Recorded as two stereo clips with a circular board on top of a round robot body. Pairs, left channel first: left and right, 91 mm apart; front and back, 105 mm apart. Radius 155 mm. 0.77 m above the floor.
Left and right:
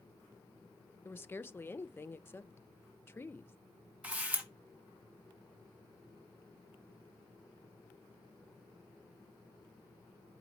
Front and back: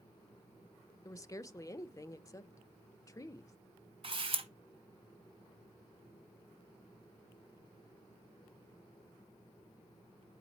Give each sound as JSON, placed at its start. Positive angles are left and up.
{"t": 1.1, "sound": "a woman speaking", "azimuth_deg": 40, "distance_m": 0.8}
{"t": 4.0, "sound": "a camera shutter", "azimuth_deg": -165, "distance_m": 1.8}